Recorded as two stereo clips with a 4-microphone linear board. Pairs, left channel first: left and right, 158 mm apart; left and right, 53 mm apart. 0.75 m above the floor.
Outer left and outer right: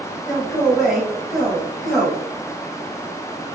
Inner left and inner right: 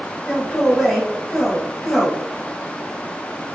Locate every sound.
0.3 s a man speaking: centre (ahead or behind), 1.3 m